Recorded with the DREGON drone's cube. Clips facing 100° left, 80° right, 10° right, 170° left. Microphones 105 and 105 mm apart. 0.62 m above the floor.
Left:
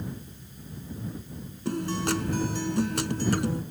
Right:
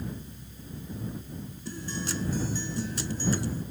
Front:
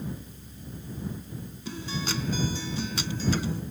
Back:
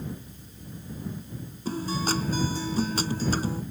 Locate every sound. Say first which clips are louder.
1.6 s a guitar: left 9 dB, back 6 dB; 120° left